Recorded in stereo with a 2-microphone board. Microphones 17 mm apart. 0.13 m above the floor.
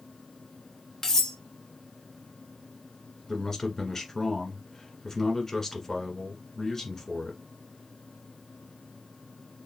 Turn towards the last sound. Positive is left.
turn(degrees=20)  # may be behind; listen again after turning